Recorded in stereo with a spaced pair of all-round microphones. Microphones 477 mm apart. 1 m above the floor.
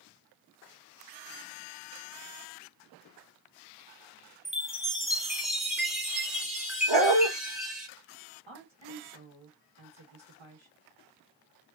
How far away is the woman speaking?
About 1.0 m.